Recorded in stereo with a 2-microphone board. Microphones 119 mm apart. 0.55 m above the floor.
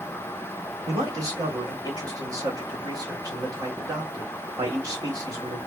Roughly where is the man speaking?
Right.